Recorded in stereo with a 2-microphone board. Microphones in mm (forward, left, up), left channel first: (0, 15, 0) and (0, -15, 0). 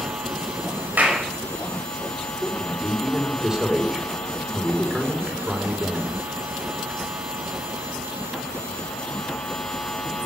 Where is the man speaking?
25° right (ahead or behind), 5 m.